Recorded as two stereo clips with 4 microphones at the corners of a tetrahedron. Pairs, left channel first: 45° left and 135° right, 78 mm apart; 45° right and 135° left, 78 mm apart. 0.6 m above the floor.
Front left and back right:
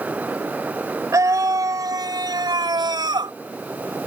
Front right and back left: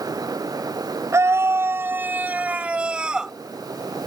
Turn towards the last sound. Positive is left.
turn(degrees=-145)